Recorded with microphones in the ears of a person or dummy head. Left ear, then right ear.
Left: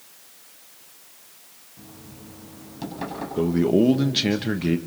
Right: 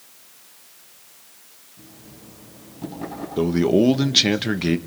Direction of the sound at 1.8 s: 65° left (ahead or behind).